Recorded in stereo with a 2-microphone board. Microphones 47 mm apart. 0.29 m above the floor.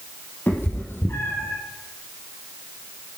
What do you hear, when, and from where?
0.5 s a cat meowing: 45° left (ahead or behind), 3 m; by 1.6 s 65° left (ahead or behind), 3 m